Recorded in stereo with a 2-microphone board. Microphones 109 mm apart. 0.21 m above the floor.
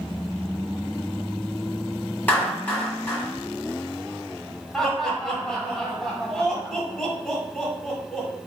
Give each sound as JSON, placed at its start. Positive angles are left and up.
{"t": 2.3, "sound": "a clap", "side_deg": 20, "distance_m": 1.3}
{"t": 4.7, "sound": "laughter", "side_deg": 5, "distance_m": 1.3}